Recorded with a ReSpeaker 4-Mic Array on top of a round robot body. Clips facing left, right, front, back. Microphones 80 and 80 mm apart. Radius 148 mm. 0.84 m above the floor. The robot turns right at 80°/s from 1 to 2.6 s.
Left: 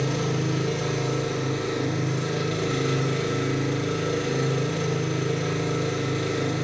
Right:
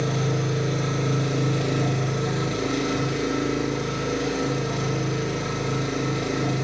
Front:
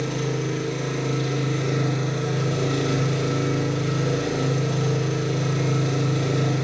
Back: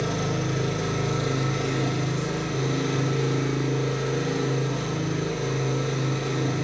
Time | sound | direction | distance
0.0 | an engine running | 140° right | 3 m